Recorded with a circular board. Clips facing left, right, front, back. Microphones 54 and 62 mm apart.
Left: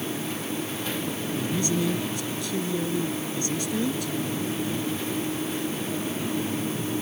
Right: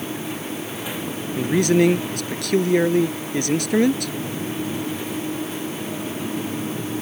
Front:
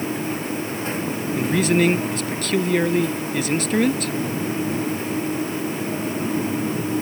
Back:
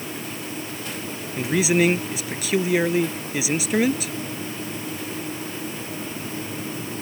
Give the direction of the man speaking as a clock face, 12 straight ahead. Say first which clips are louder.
Right 11 dB, front 1 dB; 3 o'clock.